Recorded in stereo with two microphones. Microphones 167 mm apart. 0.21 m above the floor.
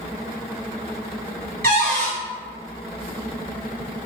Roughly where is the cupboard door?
Right.